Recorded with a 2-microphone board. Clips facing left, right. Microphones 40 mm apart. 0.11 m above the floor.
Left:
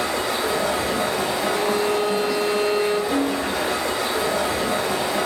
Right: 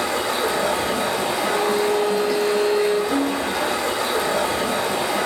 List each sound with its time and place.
0.0 s running water: 55° right (ahead or behind), 1.4 m
1.4 s a violin: 20° left (ahead or behind), 0.9 m
3.1 s a snare drum: 30° left (ahead or behind), 1.0 m